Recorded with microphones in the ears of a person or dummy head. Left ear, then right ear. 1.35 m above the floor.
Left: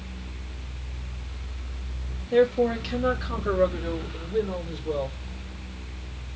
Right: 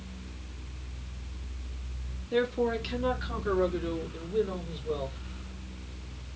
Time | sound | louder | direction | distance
2.3 | a man speaking | left 7 dB | centre (ahead or behind) | 2.5 m